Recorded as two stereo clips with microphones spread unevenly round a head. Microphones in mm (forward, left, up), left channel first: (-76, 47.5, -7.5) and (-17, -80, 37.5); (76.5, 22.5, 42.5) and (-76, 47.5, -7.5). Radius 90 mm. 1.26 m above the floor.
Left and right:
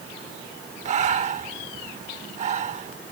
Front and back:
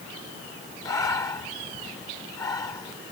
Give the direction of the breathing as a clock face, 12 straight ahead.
2 o'clock.